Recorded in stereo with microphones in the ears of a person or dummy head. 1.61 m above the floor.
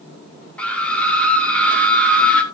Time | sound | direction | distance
0.6 | a scream | 15° left (ahead or behind) | 2.0 m